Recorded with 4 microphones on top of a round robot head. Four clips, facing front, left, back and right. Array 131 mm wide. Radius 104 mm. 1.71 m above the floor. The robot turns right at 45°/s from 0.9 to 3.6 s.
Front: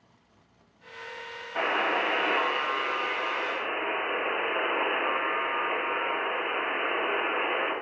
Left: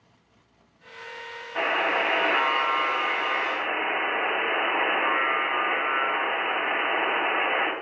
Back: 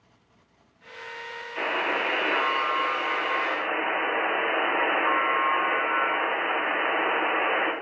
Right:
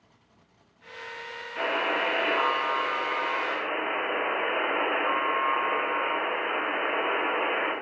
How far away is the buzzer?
About 5.5 m.